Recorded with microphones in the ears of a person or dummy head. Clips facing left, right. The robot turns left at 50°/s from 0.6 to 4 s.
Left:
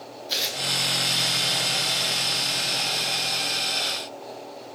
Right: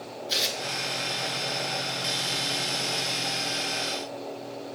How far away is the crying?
I don't hear crying.